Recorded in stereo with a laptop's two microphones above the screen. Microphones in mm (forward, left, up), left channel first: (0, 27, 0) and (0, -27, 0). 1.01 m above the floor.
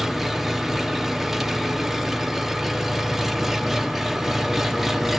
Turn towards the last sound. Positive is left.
turn(degrees=-5)  # may be behind; listen again after turning